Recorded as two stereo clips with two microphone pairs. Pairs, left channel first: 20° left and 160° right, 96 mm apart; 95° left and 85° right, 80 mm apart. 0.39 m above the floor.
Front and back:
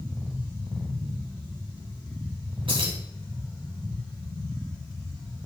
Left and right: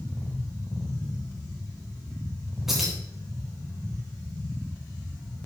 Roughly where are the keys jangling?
Behind.